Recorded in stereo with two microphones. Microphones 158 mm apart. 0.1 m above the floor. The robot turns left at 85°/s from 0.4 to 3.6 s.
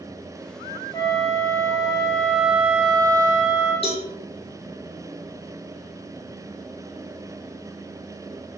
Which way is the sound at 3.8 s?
40° left (ahead or behind).